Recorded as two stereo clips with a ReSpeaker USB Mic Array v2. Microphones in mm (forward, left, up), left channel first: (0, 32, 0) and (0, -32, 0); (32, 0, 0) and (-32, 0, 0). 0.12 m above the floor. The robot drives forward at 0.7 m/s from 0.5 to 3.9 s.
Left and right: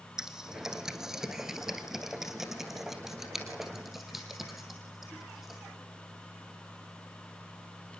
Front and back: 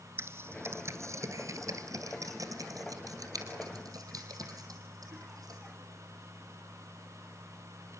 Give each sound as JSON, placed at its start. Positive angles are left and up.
{"t": 0.2, "sound": "typing on a keyboard", "azimuth_deg": -165, "distance_m": 1.7}